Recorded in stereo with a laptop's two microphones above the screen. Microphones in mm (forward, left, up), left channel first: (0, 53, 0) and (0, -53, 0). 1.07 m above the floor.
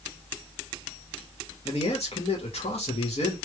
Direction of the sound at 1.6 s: 75° left (ahead or behind).